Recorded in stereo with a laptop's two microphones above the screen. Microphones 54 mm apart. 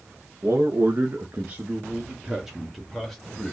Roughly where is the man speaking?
Right.